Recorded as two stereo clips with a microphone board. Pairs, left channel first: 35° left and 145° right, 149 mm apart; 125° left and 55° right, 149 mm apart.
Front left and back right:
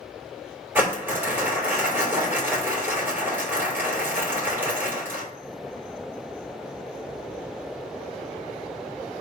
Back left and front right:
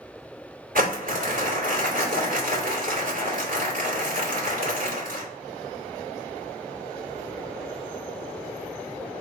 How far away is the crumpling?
About 2.0 m.